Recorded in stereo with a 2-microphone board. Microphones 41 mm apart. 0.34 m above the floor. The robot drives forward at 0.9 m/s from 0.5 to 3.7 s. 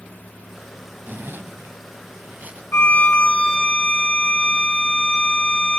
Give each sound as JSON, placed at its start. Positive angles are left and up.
{"t": 1.1, "sound": "a zipper", "side_deg": -55, "distance_m": 1.0}
{"t": 2.7, "sound": "a violin", "side_deg": 70, "distance_m": 0.6}